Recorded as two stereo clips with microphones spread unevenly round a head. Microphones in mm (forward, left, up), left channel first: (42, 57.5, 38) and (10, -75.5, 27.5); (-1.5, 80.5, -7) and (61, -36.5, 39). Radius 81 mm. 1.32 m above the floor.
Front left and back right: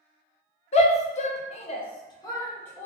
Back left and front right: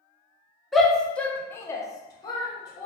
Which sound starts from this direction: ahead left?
A shout, at 0.7 s.